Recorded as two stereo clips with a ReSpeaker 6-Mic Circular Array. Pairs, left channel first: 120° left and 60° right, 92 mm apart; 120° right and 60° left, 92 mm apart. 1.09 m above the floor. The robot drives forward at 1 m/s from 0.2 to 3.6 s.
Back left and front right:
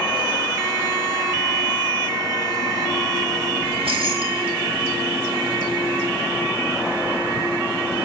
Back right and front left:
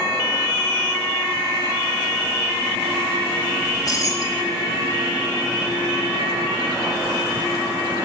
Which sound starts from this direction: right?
Keys jangling, at 3.6 s.